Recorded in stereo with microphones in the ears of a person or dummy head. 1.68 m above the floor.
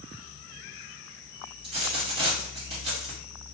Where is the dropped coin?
35° right (ahead or behind), 1.4 m.